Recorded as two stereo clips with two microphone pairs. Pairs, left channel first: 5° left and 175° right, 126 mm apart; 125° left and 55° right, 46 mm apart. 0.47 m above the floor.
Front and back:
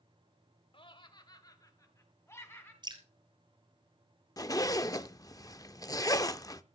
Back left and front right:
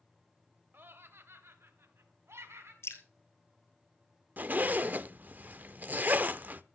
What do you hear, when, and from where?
0.7 s laughter: 30° right, 1.9 m; by 2.7 s 65° right, 4 m
2.8 s dripping: 135° left, 1.8 m
4.4 s a zipper: 40° right, 0.6 m